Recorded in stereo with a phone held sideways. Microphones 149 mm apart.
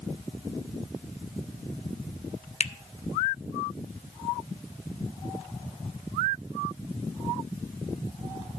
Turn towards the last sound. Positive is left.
turn(degrees=50)  # may be behind; listen again after turning